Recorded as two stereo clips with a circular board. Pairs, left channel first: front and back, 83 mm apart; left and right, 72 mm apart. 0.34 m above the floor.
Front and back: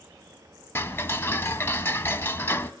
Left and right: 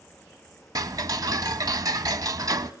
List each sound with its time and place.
0.8 s ticking: 60° right, 0.8 m